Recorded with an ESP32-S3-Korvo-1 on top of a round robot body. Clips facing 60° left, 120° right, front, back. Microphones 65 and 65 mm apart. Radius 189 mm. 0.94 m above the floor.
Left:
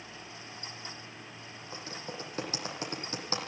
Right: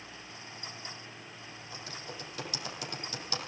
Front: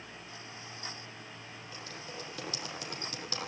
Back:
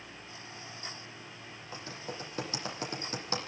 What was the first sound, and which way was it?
Typing on a keyboard, 120° left.